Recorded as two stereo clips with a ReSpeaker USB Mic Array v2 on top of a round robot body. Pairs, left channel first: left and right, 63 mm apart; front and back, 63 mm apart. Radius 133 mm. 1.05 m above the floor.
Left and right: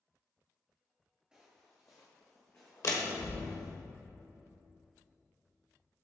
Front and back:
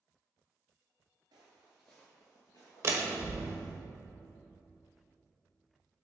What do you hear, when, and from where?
1.3 s footsteps: 165° right, 1.2 m; by 3.8 s 30° left, 3 m
2.8 s a door slam: 125° left, 1.2 m